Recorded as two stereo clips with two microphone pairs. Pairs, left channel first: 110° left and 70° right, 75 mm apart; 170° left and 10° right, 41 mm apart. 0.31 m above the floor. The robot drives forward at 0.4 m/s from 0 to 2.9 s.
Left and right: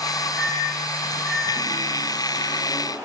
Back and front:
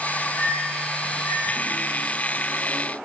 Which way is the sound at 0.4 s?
170° right.